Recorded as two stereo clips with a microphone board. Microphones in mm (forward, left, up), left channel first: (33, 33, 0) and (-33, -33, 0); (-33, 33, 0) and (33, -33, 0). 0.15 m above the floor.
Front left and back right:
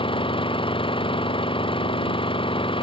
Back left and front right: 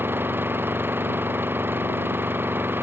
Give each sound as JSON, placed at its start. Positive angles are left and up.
{"t": 0.0, "sound": "an engine running", "azimuth_deg": 20}